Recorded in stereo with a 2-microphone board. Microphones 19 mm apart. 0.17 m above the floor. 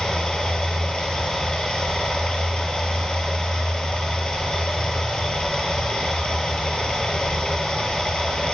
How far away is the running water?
About 1.0 m.